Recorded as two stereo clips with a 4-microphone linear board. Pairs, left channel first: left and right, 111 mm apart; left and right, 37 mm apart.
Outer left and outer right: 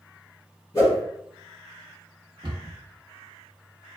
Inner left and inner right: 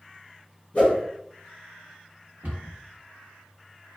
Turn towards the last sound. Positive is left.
turn(degrees=-50)  # may be behind; listen again after turning